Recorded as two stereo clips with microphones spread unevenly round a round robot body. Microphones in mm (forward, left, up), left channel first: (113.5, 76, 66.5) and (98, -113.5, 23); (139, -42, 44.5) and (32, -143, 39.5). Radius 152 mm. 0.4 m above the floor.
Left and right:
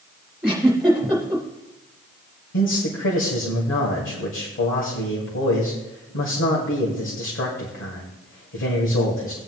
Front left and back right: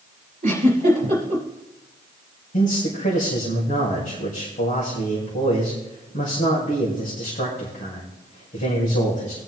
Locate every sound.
0.4 s a giggle: straight behind, 3.5 m
2.5 s a man speaking: 75° left, 2 m